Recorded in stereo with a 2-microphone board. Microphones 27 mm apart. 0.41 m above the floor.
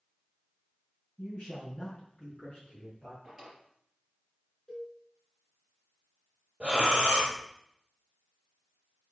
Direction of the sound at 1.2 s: 30° left (ahead or behind).